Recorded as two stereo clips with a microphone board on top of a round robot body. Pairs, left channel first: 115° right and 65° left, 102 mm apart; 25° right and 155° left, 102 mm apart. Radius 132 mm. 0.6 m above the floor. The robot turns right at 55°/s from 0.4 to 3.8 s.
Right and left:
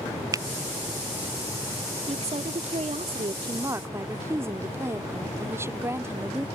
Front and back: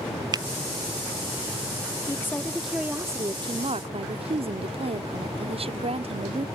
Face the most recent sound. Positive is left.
turn(degrees=135)